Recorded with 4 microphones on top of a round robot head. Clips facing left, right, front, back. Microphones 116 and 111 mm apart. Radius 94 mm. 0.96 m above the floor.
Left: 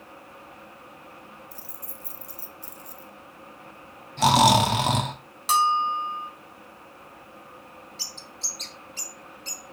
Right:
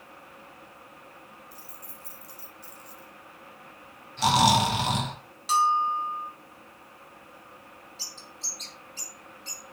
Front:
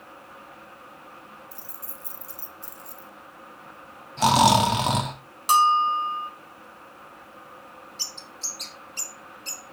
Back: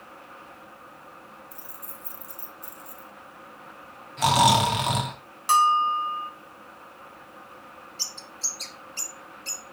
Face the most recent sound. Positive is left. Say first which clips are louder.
# left 3 dB, even
turn(degrees=70)